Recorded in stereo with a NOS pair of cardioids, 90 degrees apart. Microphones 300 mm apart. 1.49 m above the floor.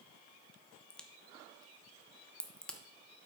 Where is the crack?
5° left, 1.1 m.